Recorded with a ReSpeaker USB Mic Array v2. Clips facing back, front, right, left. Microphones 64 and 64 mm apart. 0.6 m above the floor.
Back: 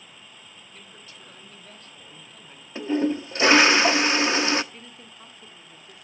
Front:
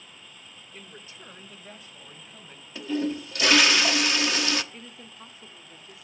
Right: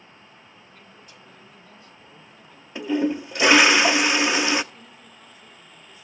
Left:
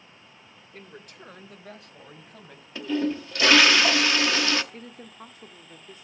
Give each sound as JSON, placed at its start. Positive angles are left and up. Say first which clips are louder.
{"t": 0.7, "sound": "a man speaking", "louder": "front 4 dB, left 8 dB", "azimuth_deg": 60, "distance_m": 2.5}
{"t": 2.8, "sound": "a toilet flushing", "louder": "back 4 dB, right 3 dB", "azimuth_deg": -145, "distance_m": 1.0}
{"t": 4.7, "sound": "a woman speaking", "louder": "front 1 dB, left 5 dB", "azimuth_deg": 85, "distance_m": 1.5}